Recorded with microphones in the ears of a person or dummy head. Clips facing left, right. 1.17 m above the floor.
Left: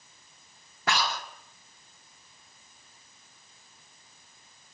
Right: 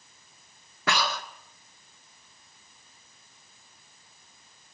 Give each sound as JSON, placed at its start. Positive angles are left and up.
{"t": 0.9, "sound": "breathing", "side_deg": -70, "distance_m": 1.3}